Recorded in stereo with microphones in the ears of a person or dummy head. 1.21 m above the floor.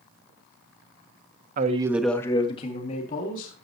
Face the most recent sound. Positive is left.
turn(degrees=45)  # may be behind; listen again after turning